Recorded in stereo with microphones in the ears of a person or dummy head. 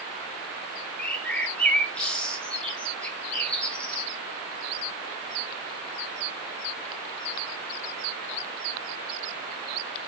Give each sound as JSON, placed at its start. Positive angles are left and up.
{"t": 1.0, "sound": "a bird", "side_deg": 10, "distance_m": 1.3}